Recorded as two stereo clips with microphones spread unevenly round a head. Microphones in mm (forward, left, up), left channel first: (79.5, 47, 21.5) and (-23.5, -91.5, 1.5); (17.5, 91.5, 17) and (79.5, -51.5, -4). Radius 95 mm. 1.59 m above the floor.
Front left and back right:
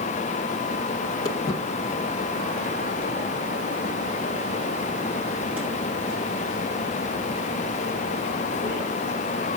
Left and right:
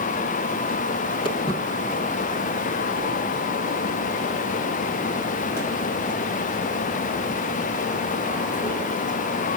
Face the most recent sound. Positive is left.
turn(degrees=155)